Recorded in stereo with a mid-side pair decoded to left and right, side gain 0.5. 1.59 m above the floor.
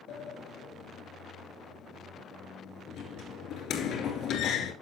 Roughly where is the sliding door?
Left.